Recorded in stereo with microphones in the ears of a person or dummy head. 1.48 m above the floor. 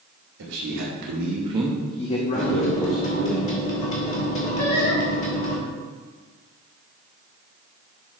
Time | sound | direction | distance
0.4 | a man speaking | 75° right (ahead or behind) | 2.5 m
2.3 | a microwave | 40° left (ahead or behind) | 1.4 m
4.6 | singing | 55° left (ahead or behind) | 3 m